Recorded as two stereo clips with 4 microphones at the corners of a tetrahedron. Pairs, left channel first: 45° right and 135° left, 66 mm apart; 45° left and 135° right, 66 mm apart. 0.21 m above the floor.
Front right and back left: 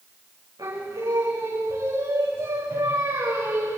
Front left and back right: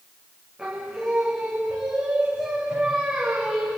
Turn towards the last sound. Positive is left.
turn(degrees=150)